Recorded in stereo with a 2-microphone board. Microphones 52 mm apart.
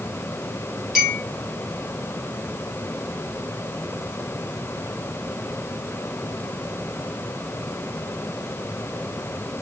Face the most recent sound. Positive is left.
turn(degrees=-5)  # may be behind; listen again after turning